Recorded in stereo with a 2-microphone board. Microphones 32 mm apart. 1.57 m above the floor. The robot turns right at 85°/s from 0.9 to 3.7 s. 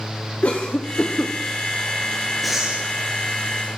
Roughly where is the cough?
Left.